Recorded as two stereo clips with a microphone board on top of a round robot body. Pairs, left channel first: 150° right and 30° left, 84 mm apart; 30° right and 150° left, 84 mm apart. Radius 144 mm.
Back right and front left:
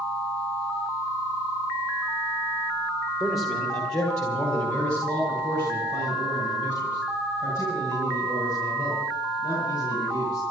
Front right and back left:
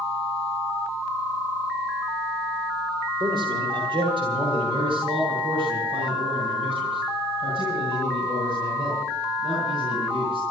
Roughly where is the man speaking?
Behind left.